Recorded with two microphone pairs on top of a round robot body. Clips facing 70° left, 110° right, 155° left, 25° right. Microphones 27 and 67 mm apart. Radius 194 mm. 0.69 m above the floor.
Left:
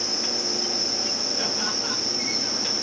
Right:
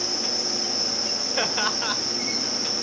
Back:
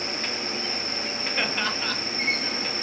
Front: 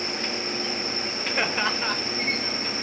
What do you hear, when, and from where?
1.4 s laughter: 95° right, 3 m